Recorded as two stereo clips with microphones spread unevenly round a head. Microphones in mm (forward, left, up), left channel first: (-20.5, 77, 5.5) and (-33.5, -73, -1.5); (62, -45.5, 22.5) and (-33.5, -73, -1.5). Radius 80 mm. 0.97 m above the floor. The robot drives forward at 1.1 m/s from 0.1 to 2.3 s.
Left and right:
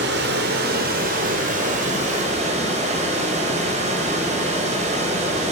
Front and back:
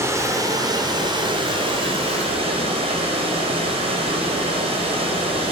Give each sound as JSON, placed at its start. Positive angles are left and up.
{"t": 0.0, "sound": "running water", "azimuth_deg": -100, "distance_m": 2.5}